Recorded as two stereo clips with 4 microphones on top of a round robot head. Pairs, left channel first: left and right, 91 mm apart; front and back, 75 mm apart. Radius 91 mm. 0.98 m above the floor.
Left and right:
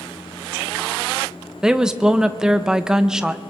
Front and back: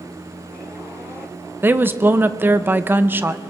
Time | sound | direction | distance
1.6 | a woman speaking | 165° right | 0.6 m